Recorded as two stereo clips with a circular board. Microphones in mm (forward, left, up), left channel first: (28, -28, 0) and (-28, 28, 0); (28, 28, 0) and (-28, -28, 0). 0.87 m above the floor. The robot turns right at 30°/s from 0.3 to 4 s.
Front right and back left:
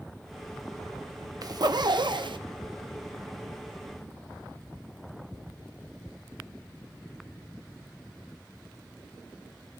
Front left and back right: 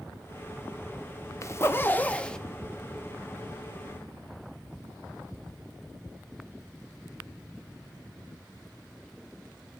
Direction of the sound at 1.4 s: 95° left.